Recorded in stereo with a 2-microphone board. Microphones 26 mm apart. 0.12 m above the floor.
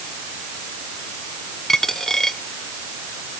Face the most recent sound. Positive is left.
turn(degrees=20)  # may be behind; listen again after turning